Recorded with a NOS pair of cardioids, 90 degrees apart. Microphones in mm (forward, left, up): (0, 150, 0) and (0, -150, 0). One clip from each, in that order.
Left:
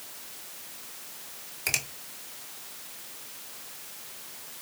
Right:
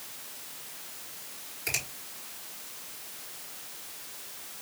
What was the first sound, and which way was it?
A finger snap, 45° left.